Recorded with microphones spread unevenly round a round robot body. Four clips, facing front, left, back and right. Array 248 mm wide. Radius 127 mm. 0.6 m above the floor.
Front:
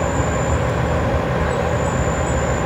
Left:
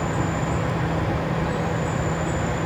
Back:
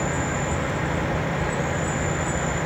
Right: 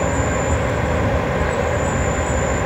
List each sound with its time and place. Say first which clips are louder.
0.0 s an insect: right 5 dB, front 6 dB; 55° right, 1.8 m